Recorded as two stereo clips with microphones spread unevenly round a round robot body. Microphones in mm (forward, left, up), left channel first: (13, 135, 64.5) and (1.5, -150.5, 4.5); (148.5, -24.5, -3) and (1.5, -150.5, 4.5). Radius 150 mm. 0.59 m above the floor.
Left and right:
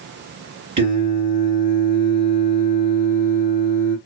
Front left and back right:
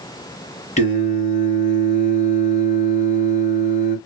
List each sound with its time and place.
0.8 s singing: 15° right, 1.5 m